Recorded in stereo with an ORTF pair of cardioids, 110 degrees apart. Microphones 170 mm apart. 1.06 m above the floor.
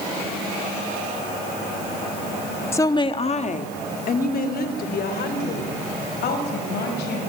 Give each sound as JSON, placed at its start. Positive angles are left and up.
{"t": 2.7, "sound": "a woman speaking", "azimuth_deg": 15, "distance_m": 1.4}